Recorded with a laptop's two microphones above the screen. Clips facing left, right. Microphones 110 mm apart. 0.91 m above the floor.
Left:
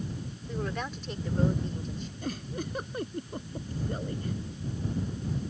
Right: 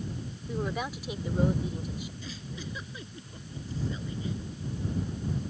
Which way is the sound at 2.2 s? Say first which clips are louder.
Left 6 dB; 55° left (ahead or behind).